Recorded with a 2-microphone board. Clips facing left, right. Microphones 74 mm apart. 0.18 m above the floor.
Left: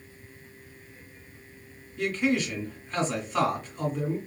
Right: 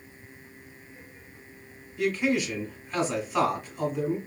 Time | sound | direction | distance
2.0 | a man speaking | 10° right (ahead or behind) | 1.3 m